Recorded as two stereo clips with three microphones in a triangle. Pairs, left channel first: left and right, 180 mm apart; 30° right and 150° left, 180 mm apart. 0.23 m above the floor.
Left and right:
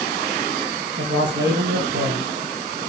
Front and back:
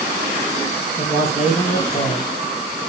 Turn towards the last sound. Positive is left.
turn(degrees=-95)